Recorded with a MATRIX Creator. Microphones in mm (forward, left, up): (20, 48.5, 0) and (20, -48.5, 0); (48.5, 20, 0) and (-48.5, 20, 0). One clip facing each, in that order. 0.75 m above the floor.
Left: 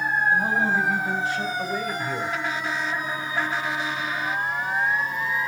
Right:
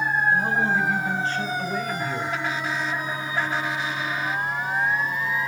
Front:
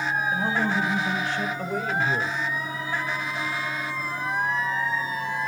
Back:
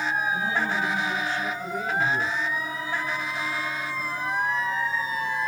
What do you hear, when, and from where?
0.3 s a man speaking: 5° left, 4 m; by 2.4 s 10° left, 3 m